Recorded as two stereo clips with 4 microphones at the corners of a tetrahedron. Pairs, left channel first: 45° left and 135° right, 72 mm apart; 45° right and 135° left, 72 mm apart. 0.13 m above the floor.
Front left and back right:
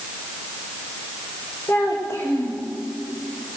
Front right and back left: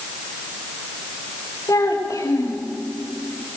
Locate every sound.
1.7 s a child speaking: 10° right, 6.5 m